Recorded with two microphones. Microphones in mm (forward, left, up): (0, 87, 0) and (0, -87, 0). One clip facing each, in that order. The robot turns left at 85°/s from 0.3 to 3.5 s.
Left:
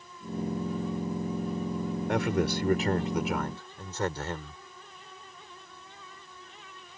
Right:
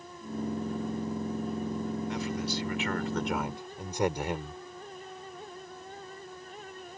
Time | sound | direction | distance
2.1 | a man speaking | 105° left | ?